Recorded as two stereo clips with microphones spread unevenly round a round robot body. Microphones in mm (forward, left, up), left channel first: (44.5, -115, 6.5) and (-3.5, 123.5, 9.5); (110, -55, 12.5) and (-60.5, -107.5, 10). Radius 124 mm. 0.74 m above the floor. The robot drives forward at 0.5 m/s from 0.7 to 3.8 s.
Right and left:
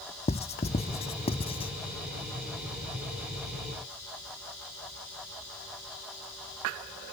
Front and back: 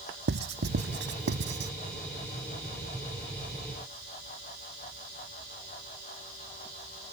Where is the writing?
145° right; by 1.7 s 150° right.